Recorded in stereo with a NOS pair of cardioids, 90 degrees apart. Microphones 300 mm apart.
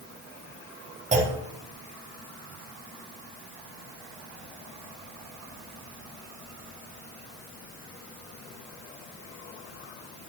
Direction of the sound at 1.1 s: 25° right.